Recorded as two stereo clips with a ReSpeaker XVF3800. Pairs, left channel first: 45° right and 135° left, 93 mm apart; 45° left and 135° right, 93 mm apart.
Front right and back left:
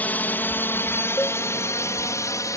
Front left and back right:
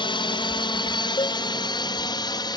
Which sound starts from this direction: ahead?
A cowbell, at 1.2 s.